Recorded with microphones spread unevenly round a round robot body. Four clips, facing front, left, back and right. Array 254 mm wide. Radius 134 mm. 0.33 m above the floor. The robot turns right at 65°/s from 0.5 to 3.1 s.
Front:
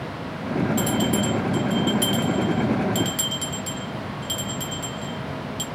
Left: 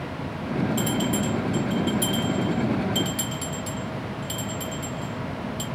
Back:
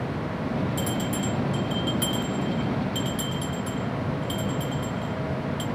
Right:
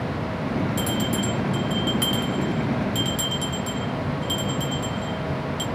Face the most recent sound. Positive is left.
turn(degrees=-10)